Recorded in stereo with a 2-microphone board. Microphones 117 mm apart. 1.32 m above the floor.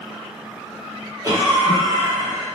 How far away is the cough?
About 1.3 m.